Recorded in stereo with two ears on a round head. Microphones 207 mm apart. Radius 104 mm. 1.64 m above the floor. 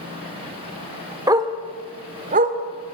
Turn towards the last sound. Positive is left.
turn(degrees=-40)  # may be behind; listen again after turning